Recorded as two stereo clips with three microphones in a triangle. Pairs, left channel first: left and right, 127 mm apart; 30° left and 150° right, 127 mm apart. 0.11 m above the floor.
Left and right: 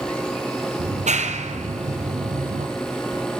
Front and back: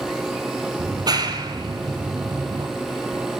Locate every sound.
0.8 s a clap: 95° right, 2 m